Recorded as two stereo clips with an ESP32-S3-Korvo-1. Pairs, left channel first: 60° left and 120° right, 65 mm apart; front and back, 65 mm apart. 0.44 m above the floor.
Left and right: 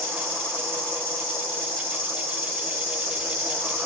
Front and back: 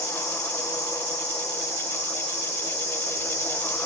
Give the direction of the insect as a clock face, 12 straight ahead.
12 o'clock.